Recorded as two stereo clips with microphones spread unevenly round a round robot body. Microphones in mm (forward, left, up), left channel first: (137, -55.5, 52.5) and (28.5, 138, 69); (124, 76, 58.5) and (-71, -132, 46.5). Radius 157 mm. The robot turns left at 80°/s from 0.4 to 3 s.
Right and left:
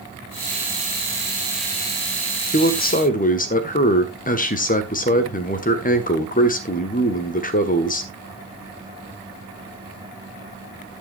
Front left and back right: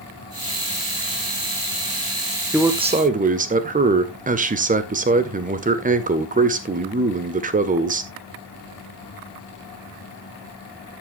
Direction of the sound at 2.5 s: 50° right.